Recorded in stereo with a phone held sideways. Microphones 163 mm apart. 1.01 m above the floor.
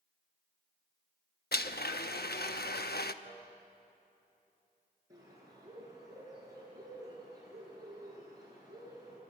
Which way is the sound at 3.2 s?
80° left.